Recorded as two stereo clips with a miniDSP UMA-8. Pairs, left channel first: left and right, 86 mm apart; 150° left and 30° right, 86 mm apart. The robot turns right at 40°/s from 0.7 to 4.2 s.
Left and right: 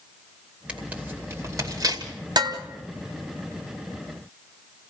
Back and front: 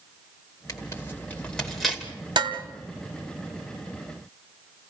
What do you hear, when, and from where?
0.7 s tearing paper: 165° right, 2.5 m; by 2.1 s 110° right, 2.5 m
2.4 s dishes clattering: 55° right, 1.9 m; by 2.6 s 45° right, 1.9 m